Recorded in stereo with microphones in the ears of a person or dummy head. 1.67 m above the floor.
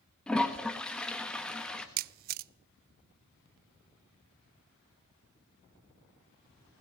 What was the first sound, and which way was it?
A toilet flushing, centre (ahead or behind).